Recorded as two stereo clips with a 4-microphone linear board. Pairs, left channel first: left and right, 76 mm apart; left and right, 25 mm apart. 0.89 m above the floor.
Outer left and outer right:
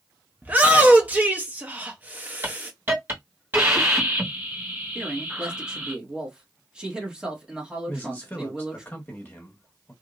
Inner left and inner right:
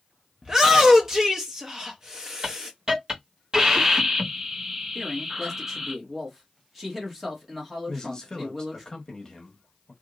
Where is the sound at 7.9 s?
25° left (ahead or behind), 1.3 m.